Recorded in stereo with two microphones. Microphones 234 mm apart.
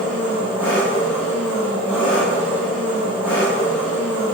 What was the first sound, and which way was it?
An engine running, 10° right (ahead or behind).